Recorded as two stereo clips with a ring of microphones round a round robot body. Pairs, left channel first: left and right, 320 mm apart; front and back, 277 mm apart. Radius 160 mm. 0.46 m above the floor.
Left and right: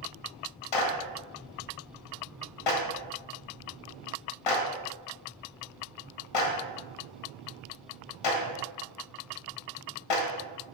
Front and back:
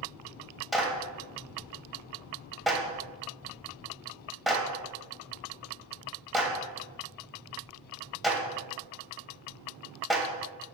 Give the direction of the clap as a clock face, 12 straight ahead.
9 o'clock.